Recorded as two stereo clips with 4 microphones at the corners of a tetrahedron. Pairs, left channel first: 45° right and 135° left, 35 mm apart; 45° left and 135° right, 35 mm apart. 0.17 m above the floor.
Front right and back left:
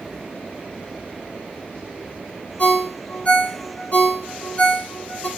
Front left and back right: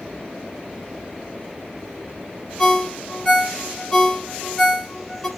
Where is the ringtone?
25° right, 1.1 m.